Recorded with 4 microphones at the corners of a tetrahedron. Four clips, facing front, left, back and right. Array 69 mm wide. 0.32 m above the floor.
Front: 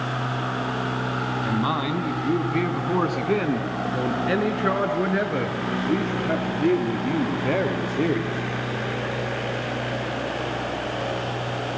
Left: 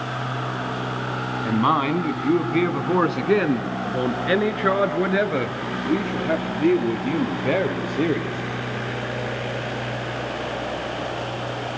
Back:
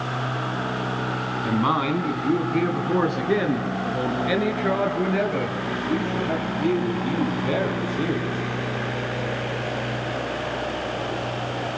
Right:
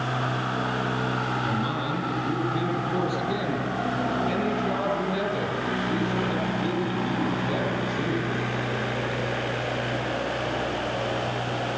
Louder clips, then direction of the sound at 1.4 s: Left 7 dB, back 4 dB; 105° left.